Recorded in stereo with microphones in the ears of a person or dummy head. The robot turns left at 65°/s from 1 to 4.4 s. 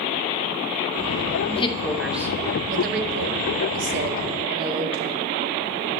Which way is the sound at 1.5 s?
35° left (ahead or behind).